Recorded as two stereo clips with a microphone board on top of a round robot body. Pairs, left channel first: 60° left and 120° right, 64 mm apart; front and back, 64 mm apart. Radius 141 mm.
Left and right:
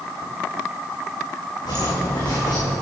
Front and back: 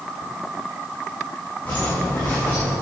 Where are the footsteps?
65° left, 4.5 m; by 2.7 s 70° left, 4.5 m.